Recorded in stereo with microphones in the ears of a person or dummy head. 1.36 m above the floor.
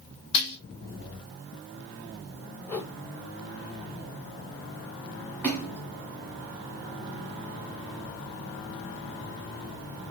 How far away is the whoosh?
About 0.9 m.